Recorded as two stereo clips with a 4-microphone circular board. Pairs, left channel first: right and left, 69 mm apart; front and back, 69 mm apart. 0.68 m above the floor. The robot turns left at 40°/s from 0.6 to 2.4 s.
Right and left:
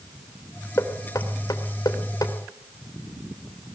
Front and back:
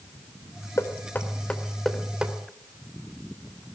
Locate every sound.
0.8 s knocking: 45° right, 2.5 m; by 2.3 s 110° right, 2.5 m